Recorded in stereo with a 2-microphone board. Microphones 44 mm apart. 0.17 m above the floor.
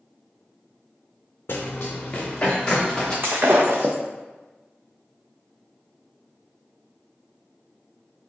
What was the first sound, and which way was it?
Running footsteps, 55° left (ahead or behind).